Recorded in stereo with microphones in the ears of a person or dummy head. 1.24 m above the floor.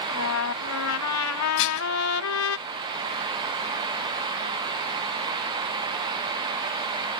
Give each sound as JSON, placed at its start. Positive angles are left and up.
{"t": 0.1, "sound": "a trumpet", "side_deg": 80}
{"t": 1.6, "sound": "dishes clattering", "side_deg": 75}